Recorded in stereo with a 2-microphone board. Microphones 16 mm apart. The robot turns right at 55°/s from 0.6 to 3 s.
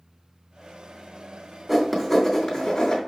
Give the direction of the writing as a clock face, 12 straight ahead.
12 o'clock.